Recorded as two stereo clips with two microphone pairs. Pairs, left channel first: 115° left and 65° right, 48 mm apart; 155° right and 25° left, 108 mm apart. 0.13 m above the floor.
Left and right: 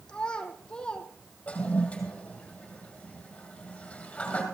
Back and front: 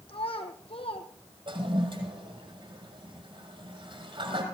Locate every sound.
0.1 s a child speaking: 175° right, 2.5 m
1.5 s a toilet flushing: 55° left, 4.5 m